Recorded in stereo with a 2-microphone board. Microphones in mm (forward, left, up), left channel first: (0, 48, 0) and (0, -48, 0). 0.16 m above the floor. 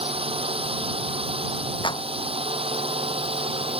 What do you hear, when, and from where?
0.0 s a drone: 75° right (ahead or behind)
1.8 s a clap: 55° left (ahead or behind)